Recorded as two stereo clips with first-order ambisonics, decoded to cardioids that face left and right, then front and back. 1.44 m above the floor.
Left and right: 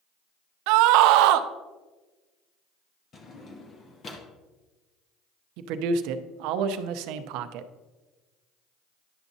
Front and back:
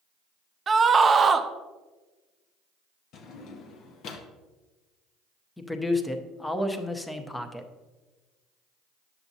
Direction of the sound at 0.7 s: 110° right.